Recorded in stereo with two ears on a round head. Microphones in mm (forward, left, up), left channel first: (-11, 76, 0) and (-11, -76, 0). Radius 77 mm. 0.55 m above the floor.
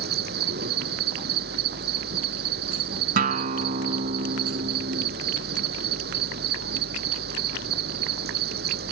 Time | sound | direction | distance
0.0 | an insect | 60° right (ahead or behind) | ?
3.2 | a guitar | 50° right (ahead or behind) | ?